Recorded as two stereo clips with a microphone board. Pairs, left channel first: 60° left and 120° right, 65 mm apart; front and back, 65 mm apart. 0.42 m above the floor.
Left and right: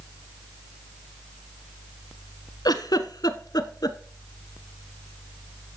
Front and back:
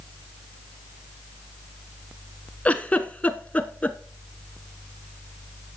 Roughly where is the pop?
I don't hear a pop.